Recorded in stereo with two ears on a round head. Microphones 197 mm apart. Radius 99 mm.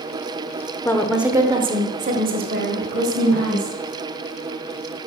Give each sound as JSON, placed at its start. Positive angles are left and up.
{"t": 0.8, "sound": "a woman speaking", "side_deg": 10, "distance_m": 0.8}